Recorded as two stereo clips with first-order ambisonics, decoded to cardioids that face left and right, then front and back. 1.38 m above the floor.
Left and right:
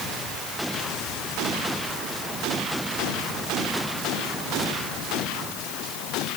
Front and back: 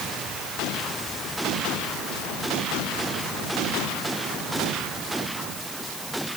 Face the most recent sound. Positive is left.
No sound to turn to.